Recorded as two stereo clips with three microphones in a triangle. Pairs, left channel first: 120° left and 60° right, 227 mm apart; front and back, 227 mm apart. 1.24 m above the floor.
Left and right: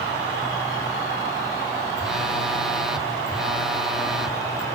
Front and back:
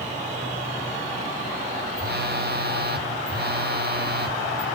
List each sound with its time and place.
2.0 s a phone buzzing: 150° right, 1.0 m